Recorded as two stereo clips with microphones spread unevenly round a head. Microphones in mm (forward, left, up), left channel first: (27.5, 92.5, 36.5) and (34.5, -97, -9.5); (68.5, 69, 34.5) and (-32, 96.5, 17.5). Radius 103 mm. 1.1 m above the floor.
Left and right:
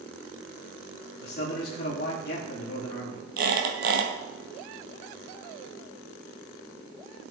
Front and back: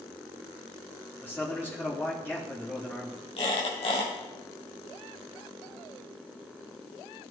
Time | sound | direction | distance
1.2 | a man speaking | 55° left | 2.5 m
3.4 | a squeak | 50° right | 2.5 m